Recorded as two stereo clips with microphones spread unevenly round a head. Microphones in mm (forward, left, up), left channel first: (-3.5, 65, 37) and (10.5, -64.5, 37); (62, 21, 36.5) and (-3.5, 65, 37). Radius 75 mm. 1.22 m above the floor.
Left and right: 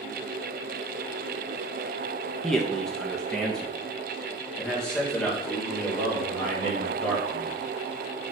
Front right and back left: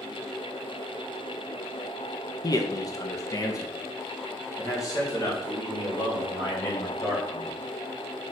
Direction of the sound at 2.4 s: 10° left.